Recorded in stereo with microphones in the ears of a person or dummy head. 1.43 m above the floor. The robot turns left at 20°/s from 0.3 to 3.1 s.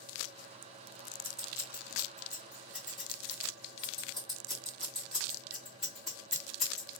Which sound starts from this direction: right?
Scissors, at 1.2 s.